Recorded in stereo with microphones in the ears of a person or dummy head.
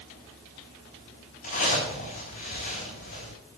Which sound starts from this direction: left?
A zipper, at 1.4 s.